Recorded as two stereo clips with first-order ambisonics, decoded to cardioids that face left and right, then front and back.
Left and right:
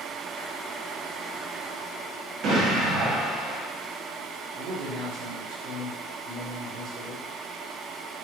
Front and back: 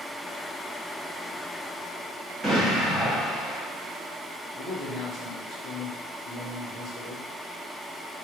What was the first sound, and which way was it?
An explosion, 110° right.